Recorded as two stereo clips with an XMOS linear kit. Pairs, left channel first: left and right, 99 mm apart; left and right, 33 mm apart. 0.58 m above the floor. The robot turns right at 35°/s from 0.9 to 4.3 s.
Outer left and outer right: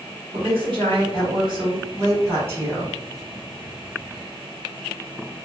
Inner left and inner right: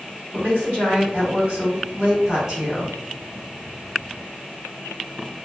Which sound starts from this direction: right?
A woman speaking, at 0.3 s.